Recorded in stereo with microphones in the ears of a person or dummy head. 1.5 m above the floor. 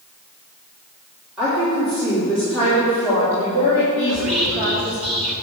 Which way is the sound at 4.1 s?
30° right (ahead or behind).